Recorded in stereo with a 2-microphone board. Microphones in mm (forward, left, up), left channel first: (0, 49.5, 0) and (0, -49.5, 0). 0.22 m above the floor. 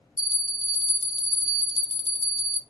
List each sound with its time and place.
0.2 s a bell: 70° right (ahead or behind), 0.6 m